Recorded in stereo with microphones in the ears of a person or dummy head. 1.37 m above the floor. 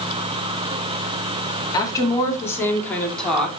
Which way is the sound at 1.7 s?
20° left (ahead or behind).